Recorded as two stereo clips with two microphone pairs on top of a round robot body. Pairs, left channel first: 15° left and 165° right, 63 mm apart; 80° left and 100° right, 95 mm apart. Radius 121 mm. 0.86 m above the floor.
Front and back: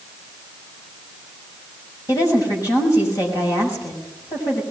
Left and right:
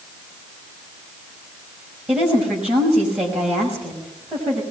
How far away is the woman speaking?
About 6 m.